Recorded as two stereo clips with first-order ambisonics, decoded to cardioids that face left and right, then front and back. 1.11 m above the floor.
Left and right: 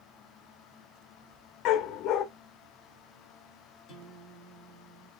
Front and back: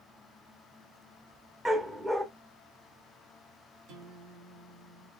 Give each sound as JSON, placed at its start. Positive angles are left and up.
{"t": 1.6, "sound": "a dog barking", "azimuth_deg": 95, "distance_m": 0.6}
{"t": 3.9, "sound": "a guitar", "azimuth_deg": 170, "distance_m": 2.0}